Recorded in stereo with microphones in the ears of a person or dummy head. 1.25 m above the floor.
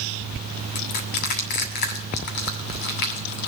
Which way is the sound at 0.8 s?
55° left (ahead or behind).